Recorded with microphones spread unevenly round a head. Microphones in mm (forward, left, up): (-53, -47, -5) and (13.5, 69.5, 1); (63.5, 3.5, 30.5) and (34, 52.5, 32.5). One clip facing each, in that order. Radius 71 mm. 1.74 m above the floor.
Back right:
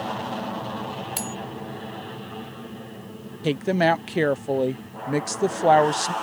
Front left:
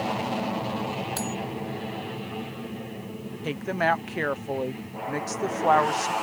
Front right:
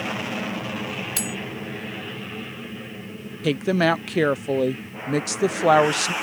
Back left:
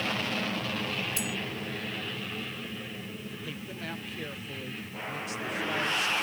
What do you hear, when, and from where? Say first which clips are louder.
0.0 s an aircraft: front left 2 dB, front right 3 dB; 10° right
1.2 s cutlery clinking: front left 2 dB, front right 4 dB; 45° right
3.4 s a woman speaking: back right 5 dB, front right 22 dB; 60° right